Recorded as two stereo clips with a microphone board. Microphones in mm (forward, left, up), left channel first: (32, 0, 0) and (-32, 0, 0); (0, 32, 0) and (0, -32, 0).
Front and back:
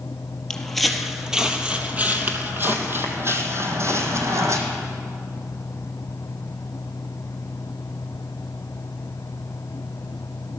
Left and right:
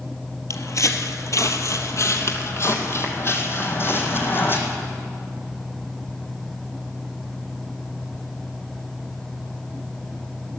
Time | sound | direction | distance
0.5 | footsteps | 80° left | 1.3 m